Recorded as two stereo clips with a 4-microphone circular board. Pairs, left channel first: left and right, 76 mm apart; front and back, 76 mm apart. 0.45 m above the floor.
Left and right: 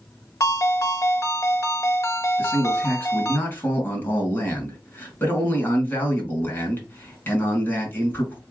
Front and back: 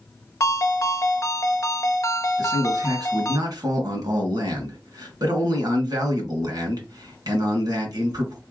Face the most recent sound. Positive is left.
turn(degrees=150)